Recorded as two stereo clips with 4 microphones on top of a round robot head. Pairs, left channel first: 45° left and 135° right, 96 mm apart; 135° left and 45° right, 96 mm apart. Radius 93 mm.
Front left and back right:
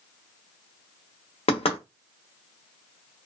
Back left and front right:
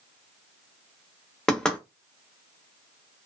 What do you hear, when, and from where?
1.5 s knocking: 50° left, 0.8 m